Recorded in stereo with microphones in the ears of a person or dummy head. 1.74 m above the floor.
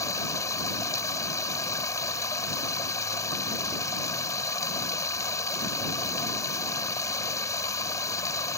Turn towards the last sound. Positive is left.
turn(degrees=15)  # may be behind; listen again after turning